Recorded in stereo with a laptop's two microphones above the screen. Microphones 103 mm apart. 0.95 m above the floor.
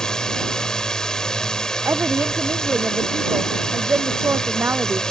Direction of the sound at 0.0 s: 5° left (ahead or behind).